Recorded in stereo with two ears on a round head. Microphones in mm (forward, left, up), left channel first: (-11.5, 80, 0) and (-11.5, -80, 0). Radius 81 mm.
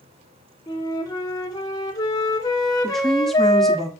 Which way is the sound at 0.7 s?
25° left (ahead or behind).